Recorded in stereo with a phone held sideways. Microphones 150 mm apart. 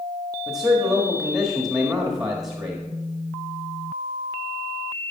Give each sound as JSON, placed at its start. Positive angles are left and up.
{"t": 0.5, "sound": "a man speaking", "side_deg": -5, "distance_m": 1.6}